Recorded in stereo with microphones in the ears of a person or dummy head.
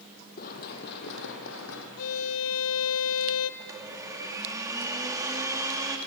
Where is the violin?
80° left, 1.1 m.